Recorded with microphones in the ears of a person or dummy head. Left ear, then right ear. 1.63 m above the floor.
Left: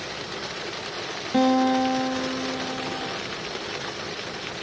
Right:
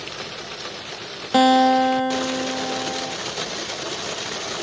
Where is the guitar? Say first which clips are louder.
Right 6 dB; 25° right (ahead or behind), 0.7 m.